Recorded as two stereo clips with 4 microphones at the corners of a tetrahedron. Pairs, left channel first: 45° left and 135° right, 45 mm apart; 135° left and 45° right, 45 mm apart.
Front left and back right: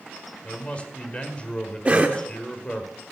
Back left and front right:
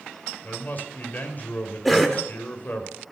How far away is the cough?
About 0.8 m.